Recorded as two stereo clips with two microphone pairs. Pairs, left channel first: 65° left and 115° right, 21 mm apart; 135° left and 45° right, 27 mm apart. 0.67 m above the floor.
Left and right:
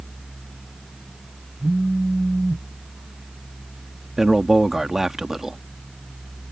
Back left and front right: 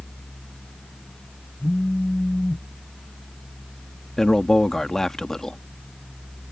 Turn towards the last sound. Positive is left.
turn(degrees=-165)